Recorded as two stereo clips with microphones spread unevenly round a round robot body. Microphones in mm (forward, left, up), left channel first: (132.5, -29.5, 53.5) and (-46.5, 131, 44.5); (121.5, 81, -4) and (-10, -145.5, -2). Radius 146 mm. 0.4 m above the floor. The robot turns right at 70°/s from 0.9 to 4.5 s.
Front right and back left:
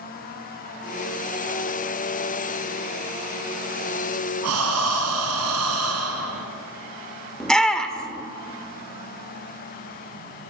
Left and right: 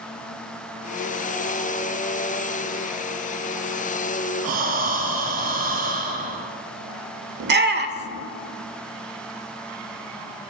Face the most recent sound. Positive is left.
turn(degrees=-130)